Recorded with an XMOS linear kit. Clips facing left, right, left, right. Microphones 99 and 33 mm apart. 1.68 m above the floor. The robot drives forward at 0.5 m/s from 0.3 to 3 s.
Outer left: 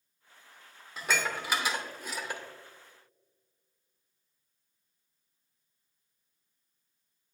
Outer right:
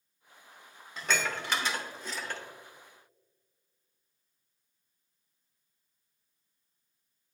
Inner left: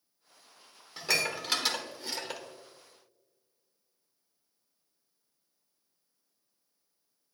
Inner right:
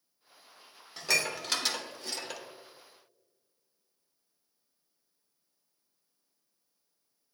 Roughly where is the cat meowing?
No cat meowing in this recording.